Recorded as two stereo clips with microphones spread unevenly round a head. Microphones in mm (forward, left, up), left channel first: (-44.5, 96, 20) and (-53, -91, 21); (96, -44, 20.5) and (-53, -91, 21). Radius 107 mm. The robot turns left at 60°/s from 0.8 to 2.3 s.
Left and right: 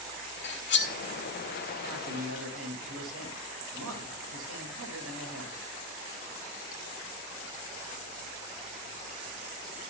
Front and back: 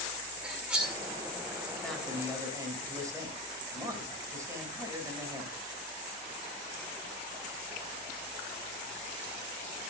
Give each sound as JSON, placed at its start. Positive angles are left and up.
{"t": 0.4, "sound": "cutlery clinking", "azimuth_deg": 110, "distance_m": 1.9}
{"t": 1.8, "sound": "a man speaking", "azimuth_deg": -65, "distance_m": 5.5}